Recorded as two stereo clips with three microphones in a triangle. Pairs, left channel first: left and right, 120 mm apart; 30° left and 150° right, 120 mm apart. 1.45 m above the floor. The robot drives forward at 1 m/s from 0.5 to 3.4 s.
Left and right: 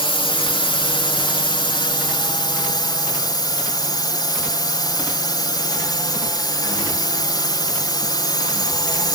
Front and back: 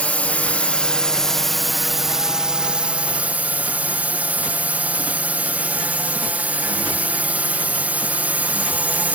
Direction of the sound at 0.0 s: 105° left.